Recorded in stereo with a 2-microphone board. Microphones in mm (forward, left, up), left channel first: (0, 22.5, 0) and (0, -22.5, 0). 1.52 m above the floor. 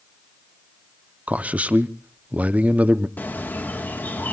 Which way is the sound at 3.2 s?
40° left (ahead or behind).